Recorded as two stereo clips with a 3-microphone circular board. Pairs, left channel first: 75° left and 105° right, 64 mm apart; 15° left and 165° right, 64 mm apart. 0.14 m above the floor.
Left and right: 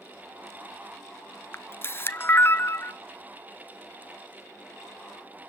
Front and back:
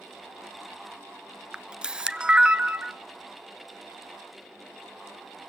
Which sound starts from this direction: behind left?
A camera shutter, at 1.5 s.